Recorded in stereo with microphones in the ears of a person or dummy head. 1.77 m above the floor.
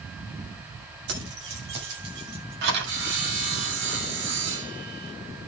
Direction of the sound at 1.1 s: 70° right (ahead or behind).